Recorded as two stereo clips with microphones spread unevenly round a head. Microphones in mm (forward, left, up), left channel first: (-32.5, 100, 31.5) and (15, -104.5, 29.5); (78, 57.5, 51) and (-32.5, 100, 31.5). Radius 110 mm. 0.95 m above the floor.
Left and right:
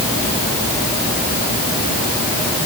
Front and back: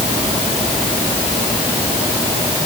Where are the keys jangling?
I don't hear keys jangling.